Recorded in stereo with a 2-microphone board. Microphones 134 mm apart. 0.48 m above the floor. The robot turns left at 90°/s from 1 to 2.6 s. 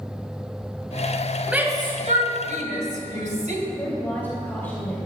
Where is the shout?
5° right (ahead or behind), 2.5 m; by 3.6 s 65° right (ahead or behind), 2.5 m.